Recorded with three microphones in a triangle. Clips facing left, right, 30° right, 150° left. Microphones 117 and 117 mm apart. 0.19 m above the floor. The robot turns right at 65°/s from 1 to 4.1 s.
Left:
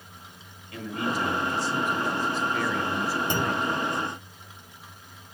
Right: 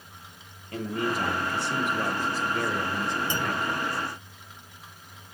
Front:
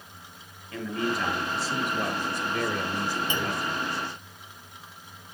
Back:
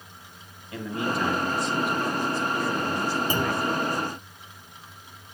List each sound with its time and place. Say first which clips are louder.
0.7 s a man speaking: right 1 dB, back 1 dB; 130° right, 3.5 m; by 3.9 s 55° left, 3.5 m
3.3 s a clunk: left 2 dB, back 4 dB; 100° left, 1.0 m; by 3.6 s 125° left, 1.0 m